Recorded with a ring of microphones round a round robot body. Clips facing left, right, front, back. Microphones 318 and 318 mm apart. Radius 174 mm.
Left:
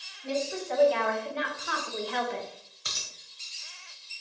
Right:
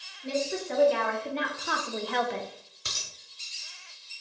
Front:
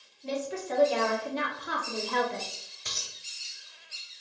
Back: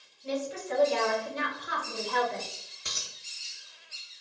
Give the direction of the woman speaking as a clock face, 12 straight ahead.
1 o'clock.